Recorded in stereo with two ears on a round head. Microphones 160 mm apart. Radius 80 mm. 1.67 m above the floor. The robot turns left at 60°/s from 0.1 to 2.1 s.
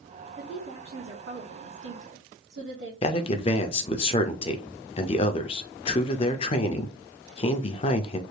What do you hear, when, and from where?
0.4 s a woman speaking: 5° right, 1.6 m; by 2.9 s 110° right, 1.6 m
3.0 s a man speaking: 30° left (ahead or behind), 0.5 m